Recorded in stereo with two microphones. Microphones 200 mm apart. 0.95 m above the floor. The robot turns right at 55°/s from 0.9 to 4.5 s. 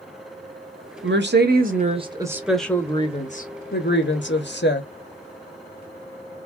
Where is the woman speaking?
85° right, 0.8 m; by 4.9 s 110° left, 0.8 m.